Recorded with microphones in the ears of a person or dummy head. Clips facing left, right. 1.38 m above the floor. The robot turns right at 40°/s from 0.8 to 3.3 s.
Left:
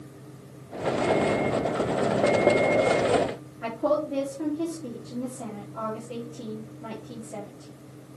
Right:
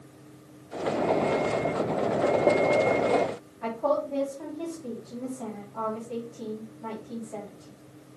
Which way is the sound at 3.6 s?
10° left (ahead or behind).